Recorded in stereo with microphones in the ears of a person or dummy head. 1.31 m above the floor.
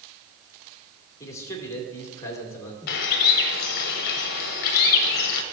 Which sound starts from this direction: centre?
A man speaking, at 1.2 s.